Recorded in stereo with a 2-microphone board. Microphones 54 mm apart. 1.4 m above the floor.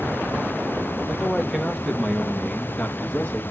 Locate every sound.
1.1 s a man speaking: 15° right (ahead or behind), 2.5 m; by 3.4 s 30° left (ahead or behind), 2 m